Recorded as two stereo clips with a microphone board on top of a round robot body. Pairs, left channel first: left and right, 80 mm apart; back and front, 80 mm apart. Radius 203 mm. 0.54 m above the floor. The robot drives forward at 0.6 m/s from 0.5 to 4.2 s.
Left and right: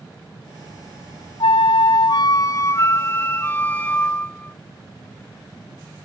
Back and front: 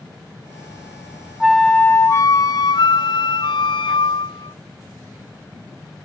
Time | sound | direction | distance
1.4 | a flute | 85° left | ?